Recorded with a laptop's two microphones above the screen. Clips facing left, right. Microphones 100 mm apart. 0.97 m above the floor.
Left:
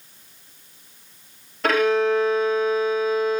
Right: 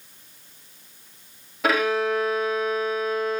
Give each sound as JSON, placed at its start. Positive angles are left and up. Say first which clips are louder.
{"t": 1.6, "sound": "a violin", "louder": "left 3 dB", "side_deg": -5, "distance_m": 1.1}